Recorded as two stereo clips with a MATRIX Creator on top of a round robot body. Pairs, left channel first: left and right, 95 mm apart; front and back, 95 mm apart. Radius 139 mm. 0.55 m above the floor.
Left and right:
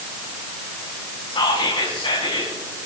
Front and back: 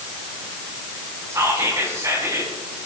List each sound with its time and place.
1.3 s whispering: 125° left, 4.5 m